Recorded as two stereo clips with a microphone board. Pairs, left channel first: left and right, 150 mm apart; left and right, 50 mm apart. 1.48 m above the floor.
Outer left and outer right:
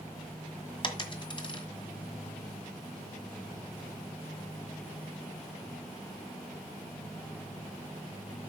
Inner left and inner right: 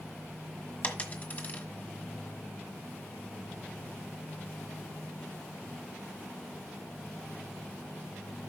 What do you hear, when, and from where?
0.8 s a dropped coin: 35° left (ahead or behind), 1.5 m